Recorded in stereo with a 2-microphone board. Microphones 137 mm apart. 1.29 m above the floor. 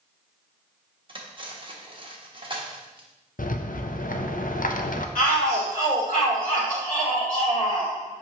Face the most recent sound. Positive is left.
turn(degrees=90)